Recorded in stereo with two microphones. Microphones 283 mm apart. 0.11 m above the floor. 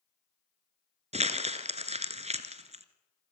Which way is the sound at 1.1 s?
25° right (ahead or behind).